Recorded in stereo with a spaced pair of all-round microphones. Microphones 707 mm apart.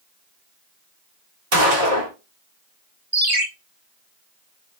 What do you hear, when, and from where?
1.5 s a gunshot: 80° right, 1.9 m
3.1 s a ringtone: 65° right (ahead or behind), 1.2 m